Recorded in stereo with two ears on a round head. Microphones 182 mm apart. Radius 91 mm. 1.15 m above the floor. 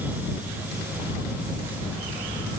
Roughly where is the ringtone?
No ringtone in this recording.